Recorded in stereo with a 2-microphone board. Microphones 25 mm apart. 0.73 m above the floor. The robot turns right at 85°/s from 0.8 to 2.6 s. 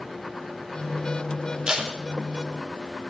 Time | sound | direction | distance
1.7 | tape being pulled | 35° right (ahead or behind) | 1.6 m